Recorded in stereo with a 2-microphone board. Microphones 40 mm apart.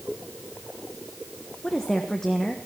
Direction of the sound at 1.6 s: 15° left (ahead or behind).